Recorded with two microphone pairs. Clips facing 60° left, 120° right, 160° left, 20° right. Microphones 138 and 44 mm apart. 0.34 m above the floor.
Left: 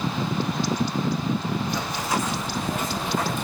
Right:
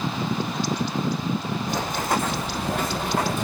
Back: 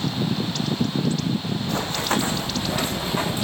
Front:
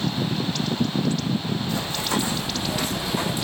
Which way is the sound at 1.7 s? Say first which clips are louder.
Right 2 dB, back 4 dB; 165° right.